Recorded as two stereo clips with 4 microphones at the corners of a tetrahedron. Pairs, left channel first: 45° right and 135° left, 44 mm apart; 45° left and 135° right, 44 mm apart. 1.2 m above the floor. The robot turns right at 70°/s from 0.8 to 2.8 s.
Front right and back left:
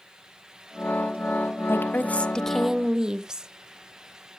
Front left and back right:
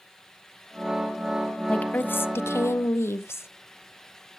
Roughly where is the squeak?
I don't hear a squeak.